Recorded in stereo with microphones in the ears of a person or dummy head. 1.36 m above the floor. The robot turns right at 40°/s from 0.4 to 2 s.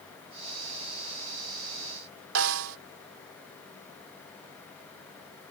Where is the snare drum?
80° right.